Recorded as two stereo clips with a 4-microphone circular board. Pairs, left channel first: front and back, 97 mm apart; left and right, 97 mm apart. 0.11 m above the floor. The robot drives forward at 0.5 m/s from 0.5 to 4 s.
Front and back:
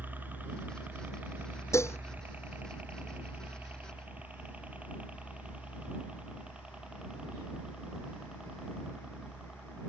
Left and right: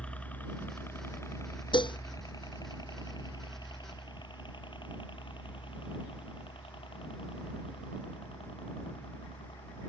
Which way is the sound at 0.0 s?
150° left.